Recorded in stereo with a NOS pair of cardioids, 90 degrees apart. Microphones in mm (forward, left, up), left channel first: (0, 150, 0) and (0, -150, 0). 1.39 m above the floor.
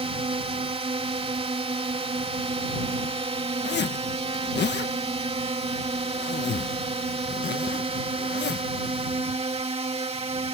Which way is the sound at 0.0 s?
20° right.